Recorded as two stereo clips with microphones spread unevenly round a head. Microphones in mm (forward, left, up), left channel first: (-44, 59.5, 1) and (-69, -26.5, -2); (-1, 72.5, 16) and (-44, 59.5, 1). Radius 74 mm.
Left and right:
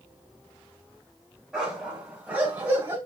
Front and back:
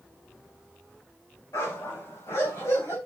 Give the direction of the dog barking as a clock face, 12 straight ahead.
1 o'clock.